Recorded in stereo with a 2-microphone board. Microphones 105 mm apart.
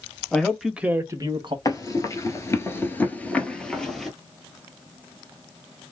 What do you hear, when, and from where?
0.3 s a man speaking: 10° left (ahead or behind), 1.2 m; by 1.6 s 50° right (ahead or behind), 1.0 m
1.6 s running footsteps: 35° left (ahead or behind), 1.2 m; by 4.1 s centre (ahead or behind), 1.3 m